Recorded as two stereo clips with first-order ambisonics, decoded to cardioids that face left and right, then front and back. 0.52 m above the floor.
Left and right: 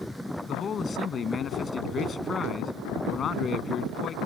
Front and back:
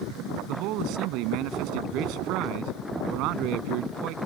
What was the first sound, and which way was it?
A man speaking, 155° left.